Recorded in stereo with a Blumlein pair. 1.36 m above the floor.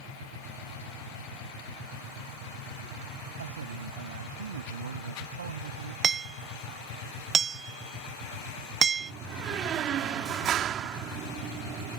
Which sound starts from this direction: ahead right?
A door slam, at 9.0 s.